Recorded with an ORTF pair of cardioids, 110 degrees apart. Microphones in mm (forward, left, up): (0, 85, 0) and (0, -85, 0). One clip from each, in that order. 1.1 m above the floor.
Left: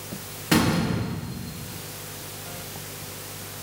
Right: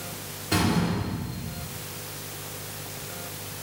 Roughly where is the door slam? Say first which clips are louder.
Left 3 dB; ahead left.